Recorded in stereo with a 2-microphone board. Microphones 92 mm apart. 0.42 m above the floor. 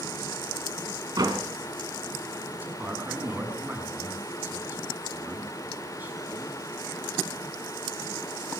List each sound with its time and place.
1.2 s a door slam: 45° right (ahead or behind), 2.5 m
2.5 s a man speaking: 20° right (ahead or behind), 4.5 m